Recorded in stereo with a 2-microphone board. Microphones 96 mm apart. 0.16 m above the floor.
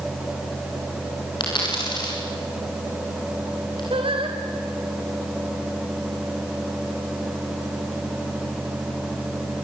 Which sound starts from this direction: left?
A dropped coin, at 1.4 s.